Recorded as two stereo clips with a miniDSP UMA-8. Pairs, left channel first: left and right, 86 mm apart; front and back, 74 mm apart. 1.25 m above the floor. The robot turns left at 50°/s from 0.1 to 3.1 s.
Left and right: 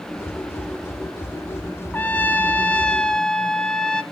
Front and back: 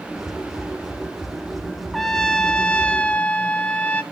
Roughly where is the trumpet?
Left.